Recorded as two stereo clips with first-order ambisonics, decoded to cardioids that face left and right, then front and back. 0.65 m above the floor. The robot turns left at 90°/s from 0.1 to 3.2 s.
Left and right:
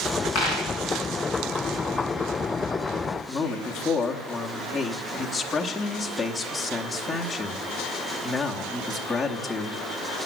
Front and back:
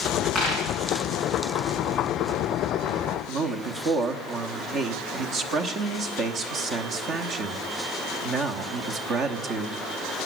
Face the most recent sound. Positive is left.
turn(degrees=165)